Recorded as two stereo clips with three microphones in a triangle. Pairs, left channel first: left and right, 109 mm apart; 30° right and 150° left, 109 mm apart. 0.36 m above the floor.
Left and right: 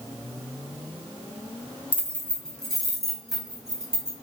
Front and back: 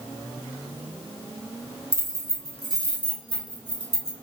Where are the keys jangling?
25° left, 0.9 m; by 4.1 s 10° right, 2 m.